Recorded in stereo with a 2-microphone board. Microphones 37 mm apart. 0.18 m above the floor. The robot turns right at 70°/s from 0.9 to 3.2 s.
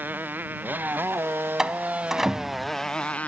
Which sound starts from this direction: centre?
A door slam, at 1.6 s.